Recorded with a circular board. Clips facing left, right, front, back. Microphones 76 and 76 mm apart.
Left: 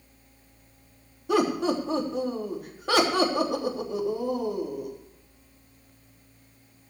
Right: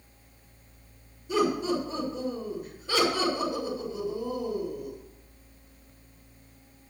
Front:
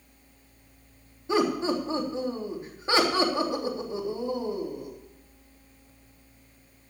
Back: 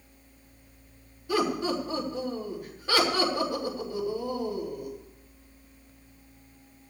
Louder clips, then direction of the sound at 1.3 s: Left 2 dB, front 2 dB; 65° left.